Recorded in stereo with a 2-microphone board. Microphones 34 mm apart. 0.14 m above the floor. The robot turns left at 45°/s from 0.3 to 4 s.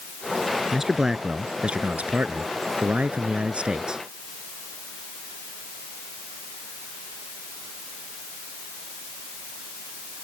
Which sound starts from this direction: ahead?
A man speaking, at 0.7 s.